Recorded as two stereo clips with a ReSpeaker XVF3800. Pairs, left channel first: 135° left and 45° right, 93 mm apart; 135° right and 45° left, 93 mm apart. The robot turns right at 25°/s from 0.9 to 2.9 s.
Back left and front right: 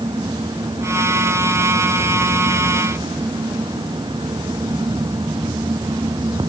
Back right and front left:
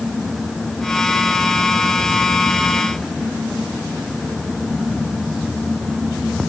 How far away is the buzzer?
No buzzer in this recording.